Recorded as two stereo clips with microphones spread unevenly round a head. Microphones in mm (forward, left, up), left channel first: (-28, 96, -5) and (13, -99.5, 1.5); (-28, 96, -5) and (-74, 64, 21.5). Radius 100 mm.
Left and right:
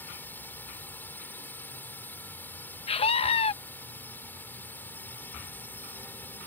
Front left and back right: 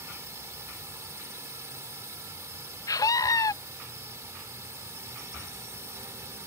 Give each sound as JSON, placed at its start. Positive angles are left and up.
{"t": 0.0, "sound": "a drone", "azimuth_deg": -175}
{"t": 2.9, "sound": "a scream", "azimuth_deg": 40}